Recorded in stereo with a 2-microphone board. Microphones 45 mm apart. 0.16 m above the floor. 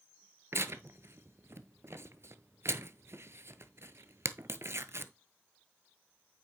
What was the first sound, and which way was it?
Tearing paper, 75° right (ahead or behind).